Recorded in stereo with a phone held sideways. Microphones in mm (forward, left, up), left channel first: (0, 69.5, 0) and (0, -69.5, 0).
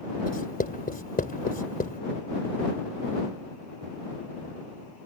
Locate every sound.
0.2 s writing: 85° left